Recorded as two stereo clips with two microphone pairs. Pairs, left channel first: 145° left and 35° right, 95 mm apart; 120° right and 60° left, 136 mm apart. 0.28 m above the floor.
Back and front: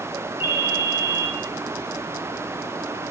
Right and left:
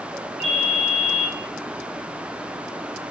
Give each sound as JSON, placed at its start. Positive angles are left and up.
{"t": 0.4, "sound": "a ringtone", "azimuth_deg": 35, "distance_m": 1.0}